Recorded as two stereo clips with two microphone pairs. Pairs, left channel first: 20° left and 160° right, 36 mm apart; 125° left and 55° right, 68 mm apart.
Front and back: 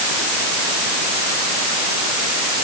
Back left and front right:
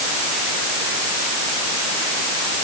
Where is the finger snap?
No finger snap in this recording.